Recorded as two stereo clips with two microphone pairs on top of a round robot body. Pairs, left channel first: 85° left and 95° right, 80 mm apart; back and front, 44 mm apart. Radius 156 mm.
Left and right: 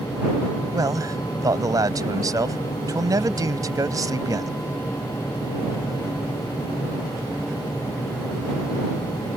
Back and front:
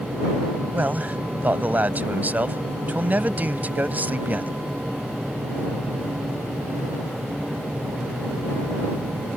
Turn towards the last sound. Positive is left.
turn(degrees=-50)